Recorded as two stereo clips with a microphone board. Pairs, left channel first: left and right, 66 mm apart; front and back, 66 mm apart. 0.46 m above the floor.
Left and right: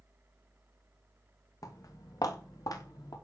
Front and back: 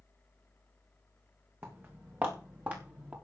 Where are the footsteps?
120° left, 5 m; by 3.1 s 115° left, 5.5 m.